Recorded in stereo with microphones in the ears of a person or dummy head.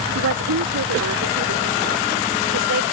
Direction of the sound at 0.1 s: 60° right (ahead or behind).